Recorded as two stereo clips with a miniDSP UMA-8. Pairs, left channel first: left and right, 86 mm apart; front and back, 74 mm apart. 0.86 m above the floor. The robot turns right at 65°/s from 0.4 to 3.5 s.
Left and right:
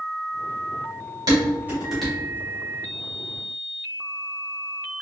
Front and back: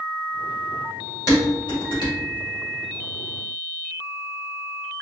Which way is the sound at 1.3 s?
50° right.